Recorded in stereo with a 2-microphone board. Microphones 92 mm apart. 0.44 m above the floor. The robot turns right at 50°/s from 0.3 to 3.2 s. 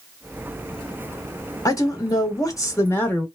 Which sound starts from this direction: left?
A woman speaking, at 1.6 s.